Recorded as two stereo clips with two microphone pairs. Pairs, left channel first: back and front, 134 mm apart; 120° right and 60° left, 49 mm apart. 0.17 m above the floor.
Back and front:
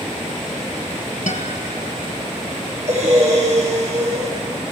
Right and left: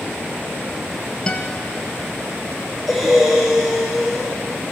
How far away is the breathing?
About 4.5 m.